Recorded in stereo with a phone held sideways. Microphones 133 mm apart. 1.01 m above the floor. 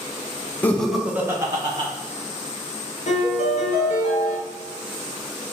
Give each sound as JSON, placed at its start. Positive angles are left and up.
{"t": 0.6, "sound": "laughter", "side_deg": 10, "distance_m": 0.6}
{"t": 3.1, "sound": "a piano", "side_deg": 55, "distance_m": 1.1}